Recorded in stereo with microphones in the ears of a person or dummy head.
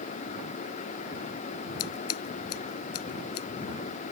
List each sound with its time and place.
1.8 s scissors: 80° left